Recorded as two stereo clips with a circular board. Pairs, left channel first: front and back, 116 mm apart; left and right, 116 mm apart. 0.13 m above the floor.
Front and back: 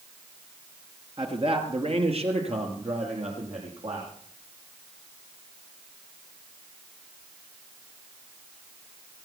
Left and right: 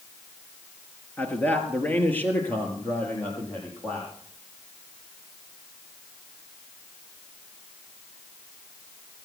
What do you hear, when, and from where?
1.2 s a man speaking: 160° left, 2.5 m; by 4.1 s 165° left, 6.5 m